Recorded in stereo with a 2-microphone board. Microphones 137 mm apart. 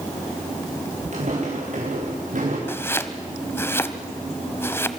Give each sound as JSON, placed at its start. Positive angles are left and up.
{"t": 1.1, "sound": "footsteps", "side_deg": -60, "distance_m": 7.5}
{"t": 2.7, "sound": "chopping", "side_deg": 15, "distance_m": 1.2}